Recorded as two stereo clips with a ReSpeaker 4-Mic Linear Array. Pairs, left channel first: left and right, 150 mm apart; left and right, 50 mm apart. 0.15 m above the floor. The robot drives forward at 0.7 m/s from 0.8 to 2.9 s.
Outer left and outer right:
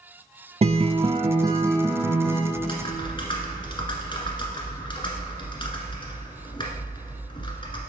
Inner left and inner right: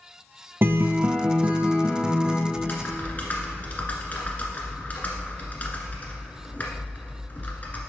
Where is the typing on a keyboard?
35° left (ahead or behind), 1.3 m.